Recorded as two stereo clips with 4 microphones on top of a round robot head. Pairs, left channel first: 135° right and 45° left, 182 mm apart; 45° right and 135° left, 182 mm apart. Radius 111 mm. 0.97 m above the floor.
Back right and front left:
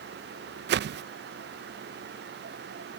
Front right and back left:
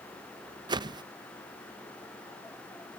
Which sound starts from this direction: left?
A whoosh, at 0.7 s.